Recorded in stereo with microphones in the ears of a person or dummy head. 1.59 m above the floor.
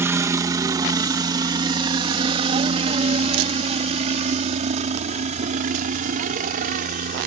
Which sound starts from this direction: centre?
A helicopter, at 0.0 s.